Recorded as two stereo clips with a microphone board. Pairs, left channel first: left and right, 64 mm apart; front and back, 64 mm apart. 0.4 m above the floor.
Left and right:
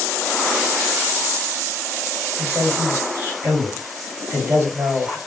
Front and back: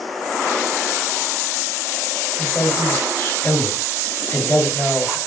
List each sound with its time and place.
2.4 s a man speaking: 65° right, 1.8 m